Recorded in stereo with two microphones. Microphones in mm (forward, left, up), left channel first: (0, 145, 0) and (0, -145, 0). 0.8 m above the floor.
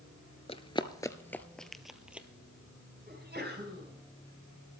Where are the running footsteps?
20° left (ahead or behind), 0.8 m; by 2.3 s 5° right (ahead or behind), 1.2 m.